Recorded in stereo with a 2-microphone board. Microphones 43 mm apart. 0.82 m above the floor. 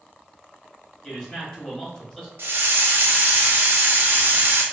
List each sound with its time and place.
1.0 s a man speaking: 20° left (ahead or behind), 1.5 m
2.4 s a hiss: 60° right (ahead or behind), 0.6 m